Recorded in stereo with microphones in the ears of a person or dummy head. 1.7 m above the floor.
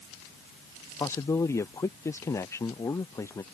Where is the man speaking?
15° left (ahead or behind).